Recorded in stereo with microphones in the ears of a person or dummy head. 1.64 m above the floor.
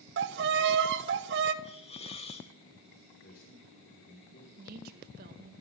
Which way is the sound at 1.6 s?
35° left (ahead or behind).